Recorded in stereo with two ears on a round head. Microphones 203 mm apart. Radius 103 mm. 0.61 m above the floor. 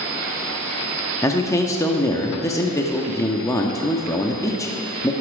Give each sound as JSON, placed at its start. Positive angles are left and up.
{"t": 1.2, "sound": "a man speaking", "side_deg": 15, "distance_m": 0.7}